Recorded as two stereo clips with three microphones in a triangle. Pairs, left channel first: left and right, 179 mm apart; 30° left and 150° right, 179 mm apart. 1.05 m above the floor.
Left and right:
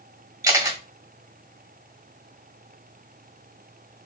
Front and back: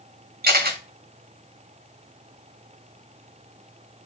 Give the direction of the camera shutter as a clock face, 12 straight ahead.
5 o'clock.